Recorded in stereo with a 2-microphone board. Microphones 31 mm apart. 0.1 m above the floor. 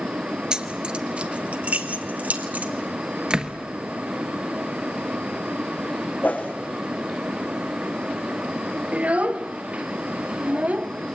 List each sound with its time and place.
0.5 s keys jangling: 25° right (ahead or behind), 1.2 m; by 2.7 s 65° right (ahead or behind), 2 m
3.3 s a door slam: 30° right (ahead or behind), 1.6 m
6.2 s a whoosh: 80° left, 3 m
8.9 s a child speaking: 45° right (ahead or behind), 1.1 m